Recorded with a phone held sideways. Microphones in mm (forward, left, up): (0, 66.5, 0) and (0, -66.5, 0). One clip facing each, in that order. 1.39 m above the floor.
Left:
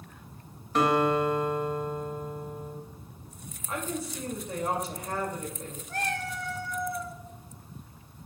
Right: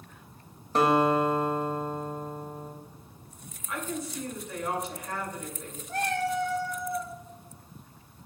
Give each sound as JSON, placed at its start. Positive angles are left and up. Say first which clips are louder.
{"t": 0.8, "sound": "a guitar", "louder": "right 1 dB", "side_deg": -35, "distance_m": 1.5}
{"t": 3.7, "sound": "a woman speaking", "louder": "left 1 dB", "side_deg": 35, "distance_m": 2.5}
{"t": 5.9, "sound": "a cat meowing", "louder": "right 5 dB", "side_deg": -25, "distance_m": 1.4}